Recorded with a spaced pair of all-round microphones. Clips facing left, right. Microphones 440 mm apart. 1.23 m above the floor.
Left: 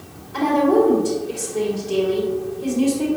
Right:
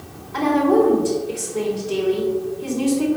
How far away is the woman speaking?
About 2.5 m.